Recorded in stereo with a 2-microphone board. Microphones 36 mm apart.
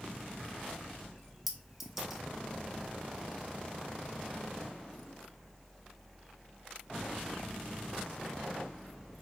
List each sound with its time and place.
1.5 s a clink: 5° right (ahead or behind), 1.6 m